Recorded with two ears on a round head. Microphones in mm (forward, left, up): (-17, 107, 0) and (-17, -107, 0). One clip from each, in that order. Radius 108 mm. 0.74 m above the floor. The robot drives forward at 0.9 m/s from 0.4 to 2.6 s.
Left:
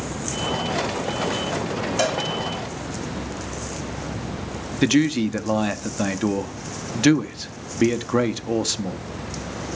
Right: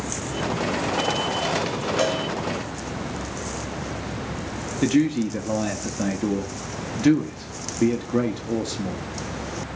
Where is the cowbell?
10° left (ahead or behind), 1.3 m.